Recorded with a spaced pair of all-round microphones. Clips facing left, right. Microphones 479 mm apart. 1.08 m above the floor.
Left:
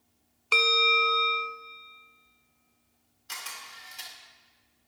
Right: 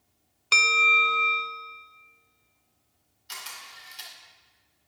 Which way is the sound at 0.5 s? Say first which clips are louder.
Left 6 dB; 40° right (ahead or behind).